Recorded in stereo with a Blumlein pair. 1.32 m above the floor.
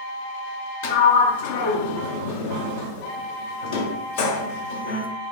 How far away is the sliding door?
About 0.7 m.